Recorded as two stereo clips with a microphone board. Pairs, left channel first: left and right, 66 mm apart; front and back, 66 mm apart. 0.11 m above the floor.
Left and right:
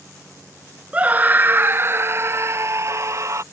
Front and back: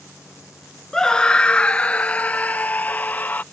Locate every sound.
0.9 s a scream: 65° right; by 3.4 s 60° right